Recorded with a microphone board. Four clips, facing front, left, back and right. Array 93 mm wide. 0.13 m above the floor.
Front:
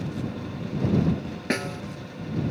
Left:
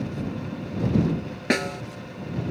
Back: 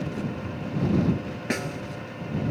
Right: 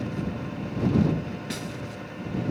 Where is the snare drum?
80° left.